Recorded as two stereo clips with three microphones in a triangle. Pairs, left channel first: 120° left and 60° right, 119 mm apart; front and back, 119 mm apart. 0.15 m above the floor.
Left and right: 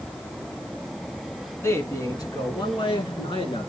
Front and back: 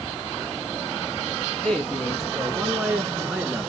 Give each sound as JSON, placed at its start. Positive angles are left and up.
{"t": 1.6, "sound": "a man speaking", "azimuth_deg": 75, "distance_m": 1.8}